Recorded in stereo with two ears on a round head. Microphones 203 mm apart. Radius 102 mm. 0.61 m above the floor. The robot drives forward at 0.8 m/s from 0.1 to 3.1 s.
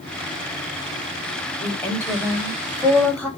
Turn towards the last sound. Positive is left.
turn(degrees=5)  # may be behind; listen again after turning